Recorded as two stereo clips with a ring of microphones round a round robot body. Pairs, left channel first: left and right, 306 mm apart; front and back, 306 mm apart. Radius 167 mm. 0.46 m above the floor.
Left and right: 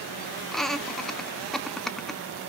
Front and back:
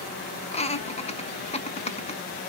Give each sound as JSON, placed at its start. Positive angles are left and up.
{"t": 0.5, "sound": "laughter", "azimuth_deg": 5, "distance_m": 0.9}